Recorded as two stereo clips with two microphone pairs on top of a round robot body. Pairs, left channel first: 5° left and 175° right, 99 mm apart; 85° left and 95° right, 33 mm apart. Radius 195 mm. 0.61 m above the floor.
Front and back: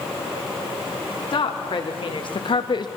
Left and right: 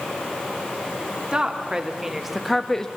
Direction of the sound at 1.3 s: 25° right.